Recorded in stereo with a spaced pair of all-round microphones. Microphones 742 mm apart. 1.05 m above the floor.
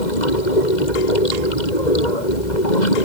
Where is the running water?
70° left (ahead or behind).